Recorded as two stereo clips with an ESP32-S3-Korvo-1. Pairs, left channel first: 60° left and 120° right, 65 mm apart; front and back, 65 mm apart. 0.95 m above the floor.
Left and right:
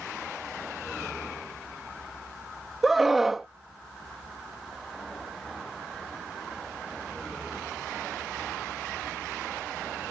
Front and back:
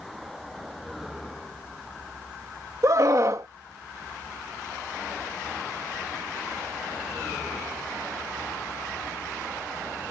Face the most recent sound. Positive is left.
turn(degrees=155)